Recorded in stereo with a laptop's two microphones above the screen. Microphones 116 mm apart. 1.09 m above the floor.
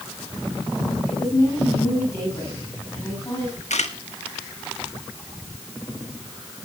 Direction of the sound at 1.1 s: 25° left (ahead or behind).